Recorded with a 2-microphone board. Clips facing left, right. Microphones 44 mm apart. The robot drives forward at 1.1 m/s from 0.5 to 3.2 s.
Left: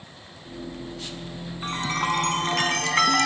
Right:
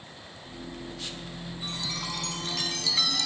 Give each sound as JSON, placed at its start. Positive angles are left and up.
{"t": 1.6, "sound": "a chime", "side_deg": 45}